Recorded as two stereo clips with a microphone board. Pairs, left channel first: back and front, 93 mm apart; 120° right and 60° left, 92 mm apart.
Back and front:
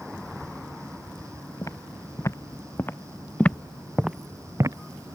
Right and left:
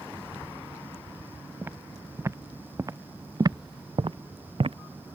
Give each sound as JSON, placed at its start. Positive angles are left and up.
{"t": 1.6, "sound": "footsteps", "azimuth_deg": 125}